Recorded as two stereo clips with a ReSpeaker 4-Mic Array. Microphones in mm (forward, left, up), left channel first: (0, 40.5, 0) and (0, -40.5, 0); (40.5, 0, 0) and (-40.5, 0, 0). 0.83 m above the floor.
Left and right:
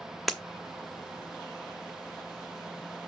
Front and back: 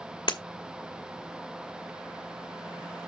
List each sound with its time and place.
0.3 s breaking glass: straight ahead, 1.5 m